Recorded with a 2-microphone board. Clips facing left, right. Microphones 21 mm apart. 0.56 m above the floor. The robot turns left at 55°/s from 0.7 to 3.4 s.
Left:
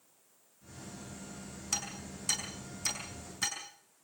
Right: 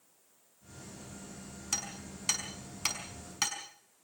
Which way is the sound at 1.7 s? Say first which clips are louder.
Even; 5° right (ahead or behind).